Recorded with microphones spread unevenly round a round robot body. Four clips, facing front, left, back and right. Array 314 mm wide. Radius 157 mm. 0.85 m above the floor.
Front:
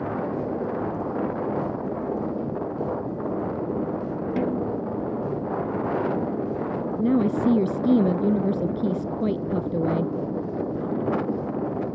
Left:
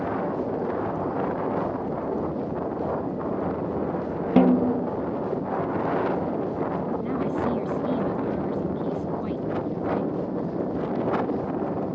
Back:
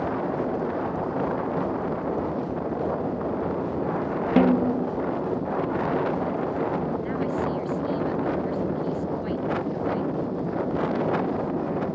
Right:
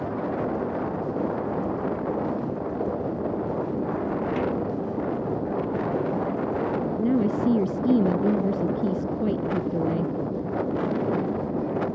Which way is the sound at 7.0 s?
30° right.